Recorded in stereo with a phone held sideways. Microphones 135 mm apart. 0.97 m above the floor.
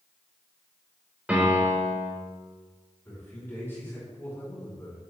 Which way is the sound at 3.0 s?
15° left (ahead or behind).